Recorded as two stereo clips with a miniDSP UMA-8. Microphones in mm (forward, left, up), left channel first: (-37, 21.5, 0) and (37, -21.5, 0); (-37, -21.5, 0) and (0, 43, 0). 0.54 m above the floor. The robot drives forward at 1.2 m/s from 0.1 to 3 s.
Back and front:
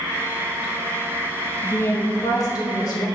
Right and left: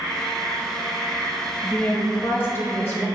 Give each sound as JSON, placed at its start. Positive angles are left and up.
{"t": 1.6, "sound": "a woman speaking", "azimuth_deg": -160, "distance_m": 0.6}